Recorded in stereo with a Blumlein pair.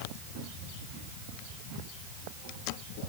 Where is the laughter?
I don't hear laughter.